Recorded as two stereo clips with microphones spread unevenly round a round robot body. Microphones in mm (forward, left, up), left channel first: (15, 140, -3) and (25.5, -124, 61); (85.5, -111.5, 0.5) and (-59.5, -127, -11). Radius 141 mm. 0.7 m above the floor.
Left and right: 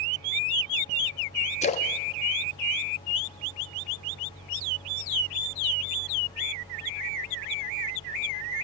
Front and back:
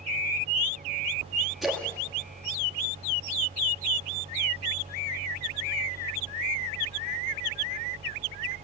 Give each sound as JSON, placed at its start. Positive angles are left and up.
{"t": 1.6, "sound": "a splash", "azimuth_deg": 100, "distance_m": 1.2}